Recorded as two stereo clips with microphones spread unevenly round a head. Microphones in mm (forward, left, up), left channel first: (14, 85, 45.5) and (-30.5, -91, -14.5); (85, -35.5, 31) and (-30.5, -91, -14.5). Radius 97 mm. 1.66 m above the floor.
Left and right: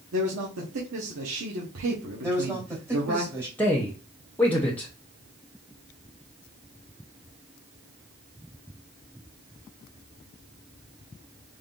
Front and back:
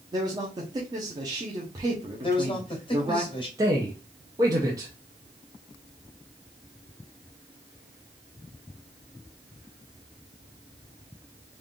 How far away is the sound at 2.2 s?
About 2.5 m.